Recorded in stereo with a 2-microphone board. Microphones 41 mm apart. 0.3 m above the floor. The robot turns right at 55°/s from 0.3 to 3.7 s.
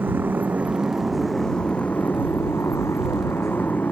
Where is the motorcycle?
50° right; by 3.9 s 140° left.